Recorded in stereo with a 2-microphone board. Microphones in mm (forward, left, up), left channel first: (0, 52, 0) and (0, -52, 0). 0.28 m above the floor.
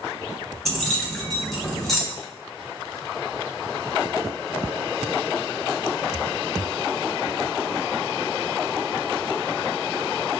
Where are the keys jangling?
5° left (ahead or behind), 1.7 m.